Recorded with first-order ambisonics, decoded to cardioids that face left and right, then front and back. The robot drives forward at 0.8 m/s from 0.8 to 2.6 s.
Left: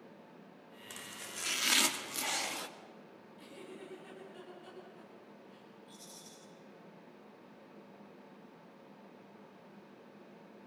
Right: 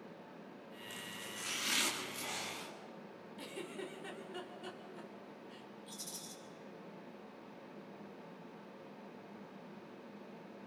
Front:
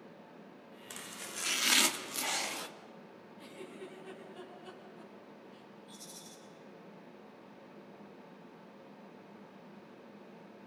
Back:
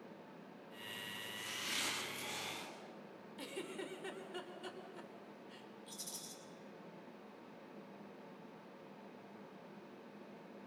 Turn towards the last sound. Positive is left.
turn(degrees=-135)